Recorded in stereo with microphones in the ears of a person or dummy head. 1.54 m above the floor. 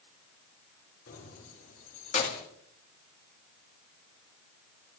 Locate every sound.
1.1 s keys jangling: 55° left (ahead or behind), 3.5 m; by 2.5 s 35° left (ahead or behind), 2 m